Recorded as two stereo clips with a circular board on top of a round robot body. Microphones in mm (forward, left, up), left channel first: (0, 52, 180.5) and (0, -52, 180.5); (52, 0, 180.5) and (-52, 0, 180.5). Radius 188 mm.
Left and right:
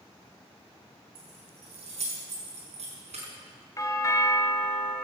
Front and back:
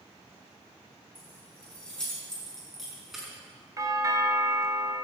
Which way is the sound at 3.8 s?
135° left.